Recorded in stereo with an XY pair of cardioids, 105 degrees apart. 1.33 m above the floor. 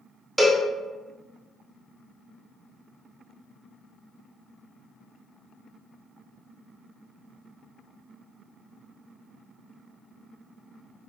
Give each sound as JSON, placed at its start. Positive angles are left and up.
{"t": 0.4, "sound": "a cowbell", "azimuth_deg": -10, "distance_m": 0.6}